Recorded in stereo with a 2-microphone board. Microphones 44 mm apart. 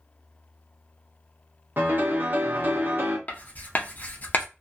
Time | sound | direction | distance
1.8 | a piano | 45° right (ahead or behind) | 0.7 m
3.3 | writing | 40° left (ahead or behind) | 0.6 m